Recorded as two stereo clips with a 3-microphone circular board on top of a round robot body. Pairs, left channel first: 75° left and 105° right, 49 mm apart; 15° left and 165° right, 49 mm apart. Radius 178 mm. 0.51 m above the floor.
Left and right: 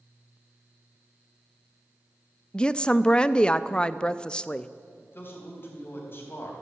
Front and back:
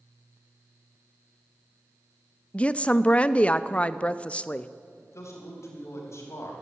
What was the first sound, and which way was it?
A woman speaking, 30° left.